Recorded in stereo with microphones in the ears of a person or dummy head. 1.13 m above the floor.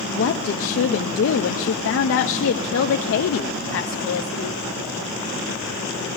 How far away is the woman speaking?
About 0.5 m.